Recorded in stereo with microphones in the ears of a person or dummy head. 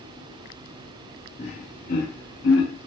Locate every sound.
1.4 s laughter: 30° left (ahead or behind), 0.8 m; by 2.9 s 60° left (ahead or behind), 1.3 m